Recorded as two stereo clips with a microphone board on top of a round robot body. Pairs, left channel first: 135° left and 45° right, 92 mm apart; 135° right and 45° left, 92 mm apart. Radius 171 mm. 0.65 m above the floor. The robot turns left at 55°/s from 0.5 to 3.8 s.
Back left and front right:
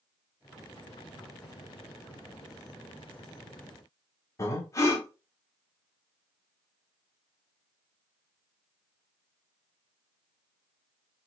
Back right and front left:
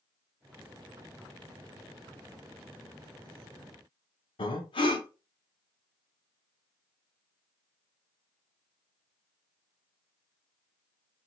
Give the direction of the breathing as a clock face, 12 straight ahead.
6 o'clock.